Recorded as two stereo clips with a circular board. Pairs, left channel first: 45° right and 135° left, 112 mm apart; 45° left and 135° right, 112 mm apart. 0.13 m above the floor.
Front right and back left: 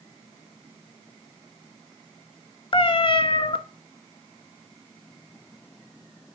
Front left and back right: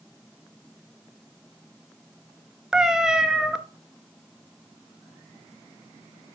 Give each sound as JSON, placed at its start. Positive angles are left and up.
{"t": 2.7, "sound": "a cat meowing", "azimuth_deg": -50, "distance_m": 0.6}